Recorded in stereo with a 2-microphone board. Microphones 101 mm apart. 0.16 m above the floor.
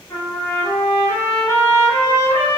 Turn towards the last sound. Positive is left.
turn(degrees=25)  # may be behind; listen again after turning